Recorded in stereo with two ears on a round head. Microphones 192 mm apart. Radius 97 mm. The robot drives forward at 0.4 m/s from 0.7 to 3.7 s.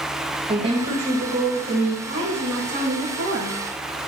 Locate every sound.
0.5 s a woman speaking: 25° right (ahead or behind), 2 m; by 1.9 s 30° right (ahead or behind), 1.6 m
2.0 s a woman speaking: 60° right (ahead or behind), 1.8 m; by 3.6 s 45° right (ahead or behind), 2 m